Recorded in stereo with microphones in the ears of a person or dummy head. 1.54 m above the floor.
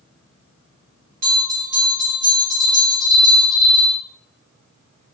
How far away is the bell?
About 1.0 m.